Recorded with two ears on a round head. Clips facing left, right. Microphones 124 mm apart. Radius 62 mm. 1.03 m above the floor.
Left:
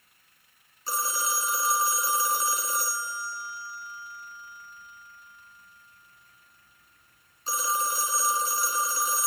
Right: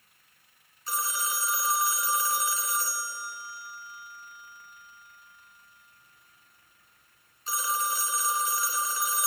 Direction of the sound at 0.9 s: 30° left (ahead or behind).